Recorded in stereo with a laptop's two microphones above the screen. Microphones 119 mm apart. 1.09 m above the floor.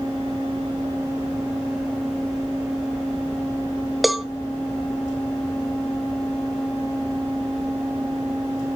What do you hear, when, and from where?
4.0 s a cowbell: centre (ahead or behind), 0.6 m